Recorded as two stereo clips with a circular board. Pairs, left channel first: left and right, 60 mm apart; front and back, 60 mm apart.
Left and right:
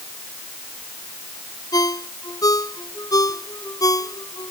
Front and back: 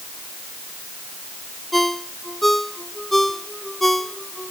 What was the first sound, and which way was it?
A ringtone, 90° left.